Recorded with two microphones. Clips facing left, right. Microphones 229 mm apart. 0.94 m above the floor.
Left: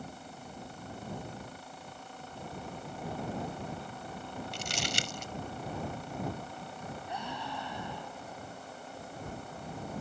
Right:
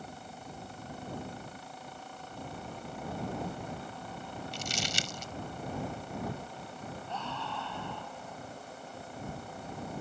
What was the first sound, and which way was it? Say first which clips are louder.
Crumpling: even; 65° left (ahead or behind).